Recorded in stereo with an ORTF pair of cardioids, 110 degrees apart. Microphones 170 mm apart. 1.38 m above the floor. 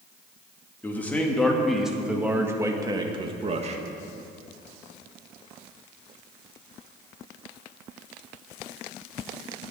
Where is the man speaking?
10° left, 2.5 m; by 3.8 s 40° right, 1.8 m.